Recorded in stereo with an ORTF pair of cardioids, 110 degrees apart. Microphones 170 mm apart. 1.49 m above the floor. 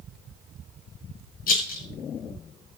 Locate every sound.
1.5 s a rattle: 55° left, 7 m